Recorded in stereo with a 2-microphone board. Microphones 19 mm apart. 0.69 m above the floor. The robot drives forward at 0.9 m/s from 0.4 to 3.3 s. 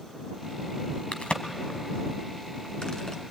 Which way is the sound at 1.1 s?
80° left.